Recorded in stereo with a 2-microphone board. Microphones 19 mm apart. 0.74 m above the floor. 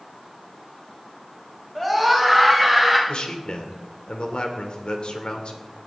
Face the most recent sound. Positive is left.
turn(degrees=65)  # may be behind; listen again after turning